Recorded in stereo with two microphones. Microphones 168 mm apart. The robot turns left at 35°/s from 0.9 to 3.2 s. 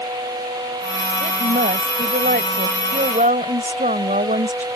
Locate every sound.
1.2 s a woman speaking: 55° right; by 4.7 s 125° right